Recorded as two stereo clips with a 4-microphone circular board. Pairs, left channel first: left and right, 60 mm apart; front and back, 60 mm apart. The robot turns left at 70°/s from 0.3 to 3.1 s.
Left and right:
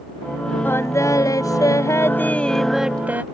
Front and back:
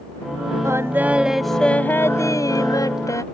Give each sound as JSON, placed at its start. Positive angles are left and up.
{"t": 0.6, "sound": "singing", "azimuth_deg": 145}